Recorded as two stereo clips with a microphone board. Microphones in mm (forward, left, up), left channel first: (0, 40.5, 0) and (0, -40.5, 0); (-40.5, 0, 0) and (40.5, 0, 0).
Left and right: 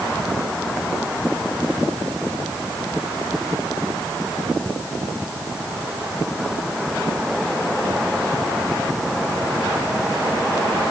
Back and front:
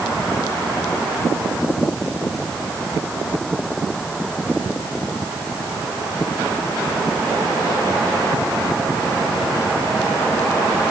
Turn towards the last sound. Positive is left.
No sound to turn to.